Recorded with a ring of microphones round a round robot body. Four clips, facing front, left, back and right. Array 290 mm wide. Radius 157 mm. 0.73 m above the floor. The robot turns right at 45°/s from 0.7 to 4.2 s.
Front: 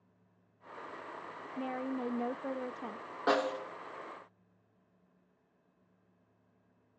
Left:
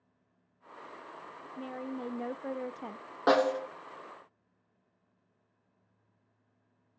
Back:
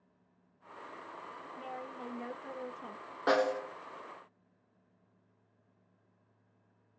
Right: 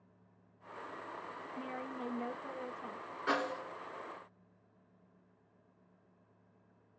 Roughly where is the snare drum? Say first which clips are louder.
Left 10 dB, back 2 dB; left.